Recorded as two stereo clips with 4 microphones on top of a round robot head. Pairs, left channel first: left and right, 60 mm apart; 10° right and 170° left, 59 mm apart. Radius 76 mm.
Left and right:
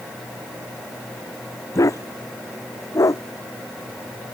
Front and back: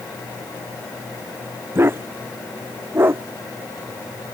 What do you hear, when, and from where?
1.8 s a dog barking: 120° left